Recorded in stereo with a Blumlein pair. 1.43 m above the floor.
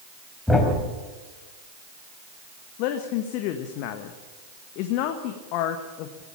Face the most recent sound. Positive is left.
turn(degrees=45)